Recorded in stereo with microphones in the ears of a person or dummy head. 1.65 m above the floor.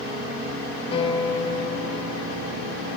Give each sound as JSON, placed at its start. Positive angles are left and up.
{"t": 0.9, "sound": "a piano", "side_deg": 30, "distance_m": 0.8}